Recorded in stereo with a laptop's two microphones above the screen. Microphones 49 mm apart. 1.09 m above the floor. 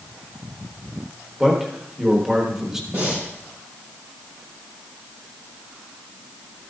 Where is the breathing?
50° right (ahead or behind), 5 m.